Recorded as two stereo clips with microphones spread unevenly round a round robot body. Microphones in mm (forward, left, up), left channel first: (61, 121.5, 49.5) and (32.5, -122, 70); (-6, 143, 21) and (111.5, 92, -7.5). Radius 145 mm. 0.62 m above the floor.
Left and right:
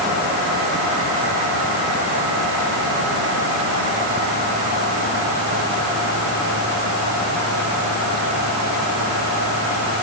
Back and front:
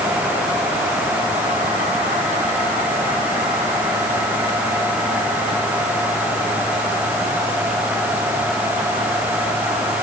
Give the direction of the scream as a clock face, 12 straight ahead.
No scream in this recording.